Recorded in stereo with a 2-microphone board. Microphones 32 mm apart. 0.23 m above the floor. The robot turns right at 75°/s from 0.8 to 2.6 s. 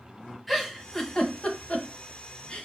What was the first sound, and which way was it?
A giggle, centre (ahead or behind).